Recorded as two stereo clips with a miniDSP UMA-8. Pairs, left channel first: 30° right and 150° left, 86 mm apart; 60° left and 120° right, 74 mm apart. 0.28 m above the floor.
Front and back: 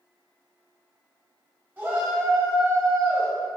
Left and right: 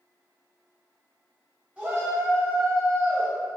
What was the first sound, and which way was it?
A shout, 175° right.